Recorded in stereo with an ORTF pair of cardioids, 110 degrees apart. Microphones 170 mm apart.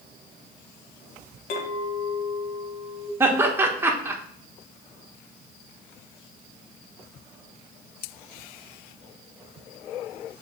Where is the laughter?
15° right, 1.5 m.